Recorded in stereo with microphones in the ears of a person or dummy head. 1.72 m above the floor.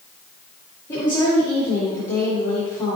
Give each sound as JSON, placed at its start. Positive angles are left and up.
{"t": 0.9, "sound": "a woman speaking", "side_deg": 15, "distance_m": 1.6}